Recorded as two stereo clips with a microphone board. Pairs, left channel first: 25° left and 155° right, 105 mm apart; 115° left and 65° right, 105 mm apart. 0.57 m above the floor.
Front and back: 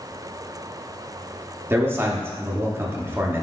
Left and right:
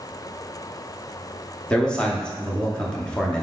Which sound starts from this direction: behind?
A man speaking, at 1.7 s.